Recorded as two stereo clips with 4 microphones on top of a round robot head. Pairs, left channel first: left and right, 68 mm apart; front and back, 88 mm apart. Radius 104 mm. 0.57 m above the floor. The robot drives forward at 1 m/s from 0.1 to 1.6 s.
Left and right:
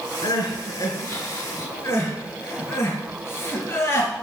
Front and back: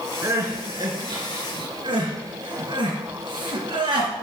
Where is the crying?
120° left, 2 m; by 4.2 s 145° left, 3 m.